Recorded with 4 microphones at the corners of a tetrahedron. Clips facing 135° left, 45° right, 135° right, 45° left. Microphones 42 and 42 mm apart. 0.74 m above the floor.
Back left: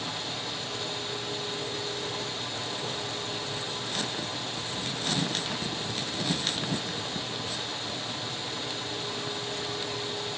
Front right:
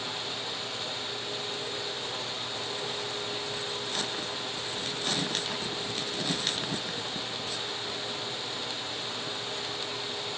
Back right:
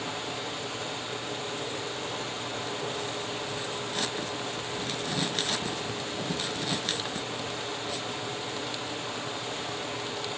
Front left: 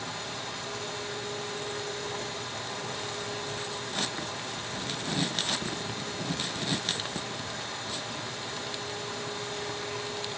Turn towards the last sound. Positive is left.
turn(degrees=-135)